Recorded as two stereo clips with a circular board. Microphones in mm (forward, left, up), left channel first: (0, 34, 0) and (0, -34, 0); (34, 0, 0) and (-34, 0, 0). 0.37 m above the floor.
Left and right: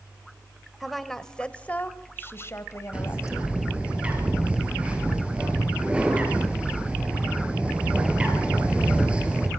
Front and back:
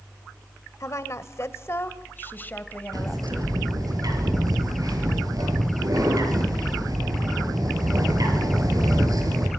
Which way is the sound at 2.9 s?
160° right.